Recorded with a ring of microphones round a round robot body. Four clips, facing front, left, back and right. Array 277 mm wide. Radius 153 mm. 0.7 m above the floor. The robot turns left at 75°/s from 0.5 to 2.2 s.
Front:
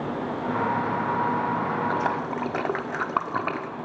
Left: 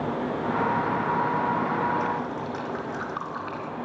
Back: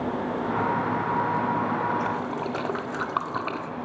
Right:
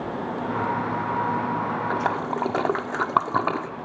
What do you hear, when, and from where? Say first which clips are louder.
1.9 s a splash: right 2 dB, front 1 dB; 55° right, 1.7 m; by 3.7 s 75° right, 1.7 m